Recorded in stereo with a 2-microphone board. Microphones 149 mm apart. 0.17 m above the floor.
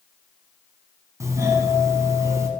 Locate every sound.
1.2 s a doorbell: 20° right (ahead or behind), 1.5 m